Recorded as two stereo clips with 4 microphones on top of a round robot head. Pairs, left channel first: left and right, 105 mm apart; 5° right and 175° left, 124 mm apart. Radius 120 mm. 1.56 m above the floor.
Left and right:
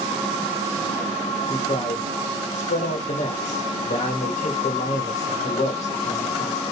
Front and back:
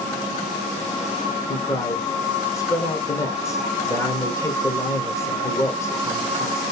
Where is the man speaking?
65° left, 1.1 m.